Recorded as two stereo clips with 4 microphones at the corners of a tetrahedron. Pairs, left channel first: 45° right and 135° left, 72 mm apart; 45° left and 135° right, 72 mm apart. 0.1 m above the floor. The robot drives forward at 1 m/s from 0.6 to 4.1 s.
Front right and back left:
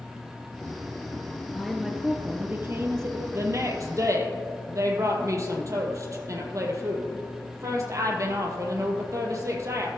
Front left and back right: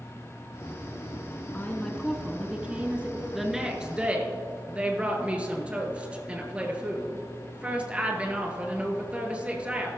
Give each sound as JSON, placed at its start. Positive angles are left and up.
{"t": 1.5, "sound": "a woman speaking", "azimuth_deg": 30, "distance_m": 1.1}
{"t": 3.4, "sound": "a woman speaking", "azimuth_deg": 140, "distance_m": 1.5}